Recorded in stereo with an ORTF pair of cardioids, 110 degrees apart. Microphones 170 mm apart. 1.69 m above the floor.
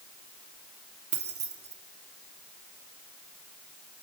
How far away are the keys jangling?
About 2.5 m.